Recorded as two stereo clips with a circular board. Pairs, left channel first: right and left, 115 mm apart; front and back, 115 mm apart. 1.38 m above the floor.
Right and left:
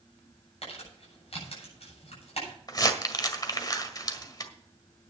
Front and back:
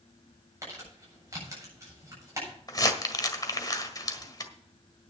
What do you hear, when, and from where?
0.6 s crumpling: 115° right, 8 m
2.7 s crumpling: 45° right, 1.6 m